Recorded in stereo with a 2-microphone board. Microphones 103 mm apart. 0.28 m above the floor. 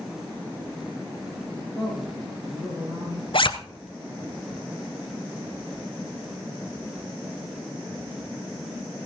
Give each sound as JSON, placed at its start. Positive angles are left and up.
{"t": 1.7, "sound": "a man speaking", "side_deg": -35, "distance_m": 8.5}
{"t": 3.3, "sound": "a zipper", "side_deg": 60, "distance_m": 0.7}